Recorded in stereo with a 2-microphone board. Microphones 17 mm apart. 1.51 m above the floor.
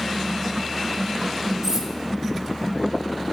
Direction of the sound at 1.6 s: 35° right (ahead or behind).